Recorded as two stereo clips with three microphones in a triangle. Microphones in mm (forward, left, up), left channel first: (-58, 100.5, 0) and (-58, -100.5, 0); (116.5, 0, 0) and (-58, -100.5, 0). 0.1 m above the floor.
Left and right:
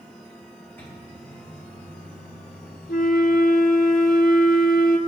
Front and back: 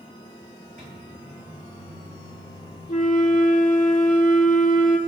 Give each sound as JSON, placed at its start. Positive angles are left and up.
{"t": 0.8, "sound": "a microwave", "azimuth_deg": 170, "distance_m": 4.5}
{"t": 2.9, "sound": "a flute", "azimuth_deg": 65, "distance_m": 0.7}